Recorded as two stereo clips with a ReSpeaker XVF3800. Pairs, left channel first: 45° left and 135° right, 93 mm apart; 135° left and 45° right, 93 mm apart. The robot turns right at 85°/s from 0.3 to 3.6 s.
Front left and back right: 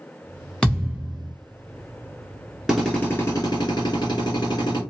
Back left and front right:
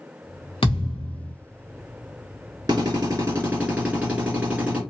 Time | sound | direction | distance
0.6 | a thud | 125° left | 1.4 m
2.7 | a drill | 50° right | 2.5 m